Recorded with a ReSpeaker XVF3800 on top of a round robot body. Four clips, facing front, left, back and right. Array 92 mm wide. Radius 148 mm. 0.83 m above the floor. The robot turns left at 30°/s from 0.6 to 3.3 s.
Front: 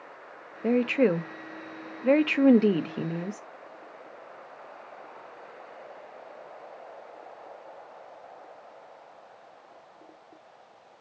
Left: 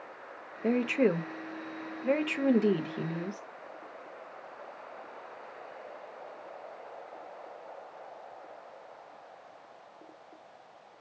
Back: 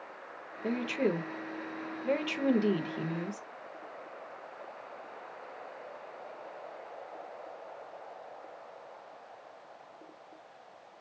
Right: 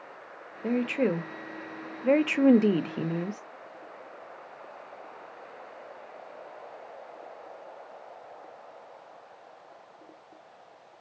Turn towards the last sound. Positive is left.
turn(degrees=-55)